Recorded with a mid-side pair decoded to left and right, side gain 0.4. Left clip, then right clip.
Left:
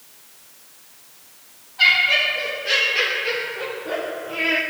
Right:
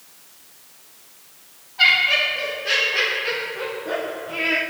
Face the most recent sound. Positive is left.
turn(degrees=-5)